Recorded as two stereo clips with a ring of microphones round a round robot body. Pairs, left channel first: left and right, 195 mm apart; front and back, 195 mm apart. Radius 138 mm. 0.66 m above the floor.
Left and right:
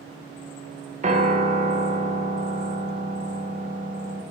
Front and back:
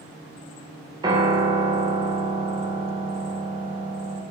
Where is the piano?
120° right, 0.7 m.